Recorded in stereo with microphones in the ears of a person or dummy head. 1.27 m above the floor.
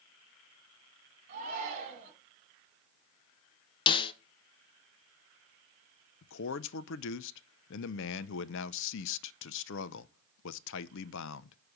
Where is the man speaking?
70° left (ahead or behind), 0.6 m.